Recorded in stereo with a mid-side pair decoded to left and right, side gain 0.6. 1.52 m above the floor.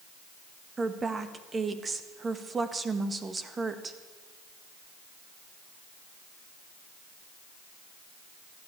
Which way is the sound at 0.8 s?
25° right.